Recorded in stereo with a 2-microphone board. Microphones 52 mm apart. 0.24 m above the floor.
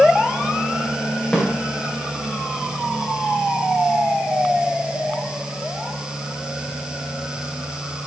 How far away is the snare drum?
About 7.5 m.